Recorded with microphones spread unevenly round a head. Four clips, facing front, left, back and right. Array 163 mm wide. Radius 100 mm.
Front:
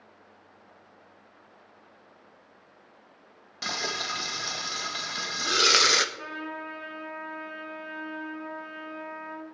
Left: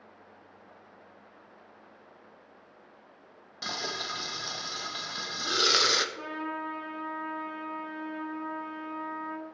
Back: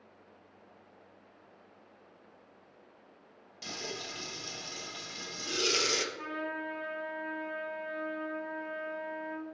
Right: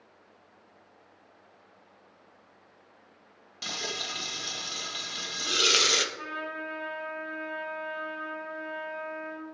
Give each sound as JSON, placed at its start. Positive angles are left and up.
{"t": 3.6, "sound": "frying", "azimuth_deg": 5, "distance_m": 0.6}
{"t": 6.2, "sound": "a trumpet", "azimuth_deg": 115, "distance_m": 1.8}